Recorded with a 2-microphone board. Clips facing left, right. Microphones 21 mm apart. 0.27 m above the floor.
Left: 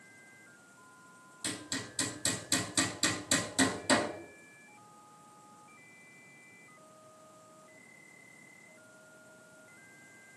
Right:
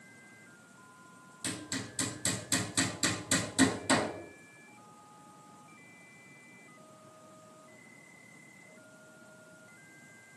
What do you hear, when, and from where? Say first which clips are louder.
1.4 s hammering: even; 15° left (ahead or behind), 3 m